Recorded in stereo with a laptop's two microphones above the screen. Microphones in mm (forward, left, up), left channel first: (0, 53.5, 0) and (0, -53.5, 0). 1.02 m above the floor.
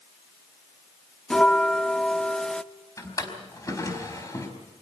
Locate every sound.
1.3 s a bell: 10° left (ahead or behind), 0.5 m
3.0 s a drawer: 30° left (ahead or behind), 4.5 m